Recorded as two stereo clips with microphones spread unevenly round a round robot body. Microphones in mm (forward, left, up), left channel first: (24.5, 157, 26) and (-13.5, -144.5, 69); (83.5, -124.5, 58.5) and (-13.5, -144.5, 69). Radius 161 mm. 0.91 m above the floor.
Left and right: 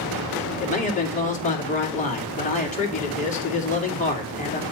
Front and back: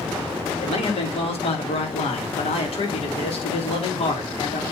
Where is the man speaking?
20° left, 2.5 m.